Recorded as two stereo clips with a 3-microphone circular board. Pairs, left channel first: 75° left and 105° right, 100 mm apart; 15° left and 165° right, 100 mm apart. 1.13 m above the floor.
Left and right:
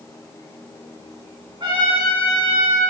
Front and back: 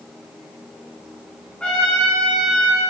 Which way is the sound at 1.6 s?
65° right.